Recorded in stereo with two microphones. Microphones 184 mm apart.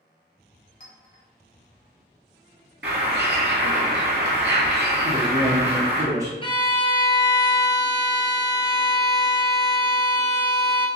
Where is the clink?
50° left (ahead or behind), 1.0 m.